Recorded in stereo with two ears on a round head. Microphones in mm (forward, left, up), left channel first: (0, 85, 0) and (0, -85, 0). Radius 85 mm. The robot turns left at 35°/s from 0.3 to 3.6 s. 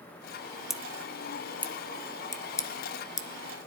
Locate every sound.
0.7 s scissors: centre (ahead or behind), 0.6 m; by 3.3 s 20° left (ahead or behind), 0.6 m